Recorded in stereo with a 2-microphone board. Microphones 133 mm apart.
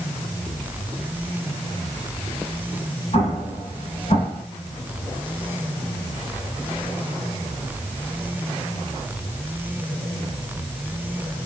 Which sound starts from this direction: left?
An explosion, at 3.1 s.